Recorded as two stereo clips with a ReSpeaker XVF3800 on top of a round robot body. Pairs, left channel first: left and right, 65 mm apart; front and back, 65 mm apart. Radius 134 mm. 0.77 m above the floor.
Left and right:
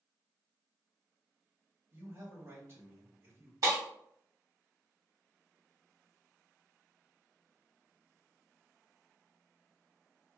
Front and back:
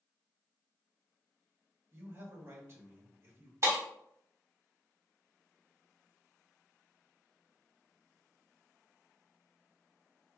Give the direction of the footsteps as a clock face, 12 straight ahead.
I don't hear footsteps.